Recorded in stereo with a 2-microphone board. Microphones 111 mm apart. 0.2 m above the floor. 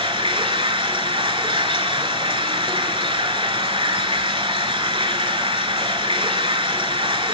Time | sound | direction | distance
0.0 | running water | 50° right (ahead or behind) | 0.9 m